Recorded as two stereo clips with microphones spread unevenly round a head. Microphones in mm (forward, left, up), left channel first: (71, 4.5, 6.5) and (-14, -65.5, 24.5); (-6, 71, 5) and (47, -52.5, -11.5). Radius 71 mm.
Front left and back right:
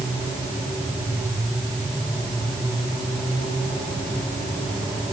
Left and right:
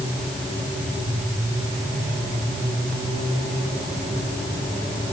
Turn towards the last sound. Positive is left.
No sound to turn to.